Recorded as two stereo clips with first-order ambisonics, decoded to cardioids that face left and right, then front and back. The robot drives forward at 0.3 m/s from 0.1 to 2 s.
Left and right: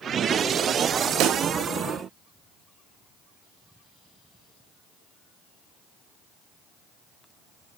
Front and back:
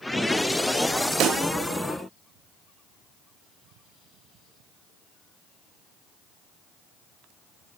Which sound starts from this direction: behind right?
A pop, at 1.2 s.